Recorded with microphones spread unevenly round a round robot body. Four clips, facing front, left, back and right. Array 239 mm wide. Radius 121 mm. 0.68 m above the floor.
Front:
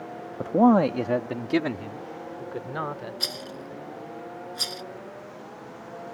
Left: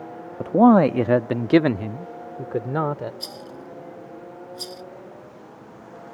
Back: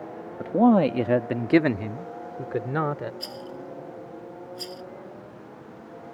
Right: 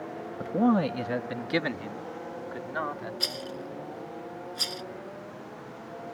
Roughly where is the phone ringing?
I don't hear a phone ringing.